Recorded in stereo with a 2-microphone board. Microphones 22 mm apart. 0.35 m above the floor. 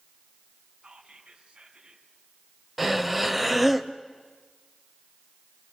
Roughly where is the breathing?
Centre.